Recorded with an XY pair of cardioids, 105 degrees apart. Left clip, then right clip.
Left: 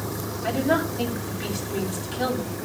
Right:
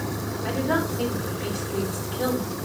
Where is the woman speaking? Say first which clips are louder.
Left 2 dB; 50° left, 8.5 m.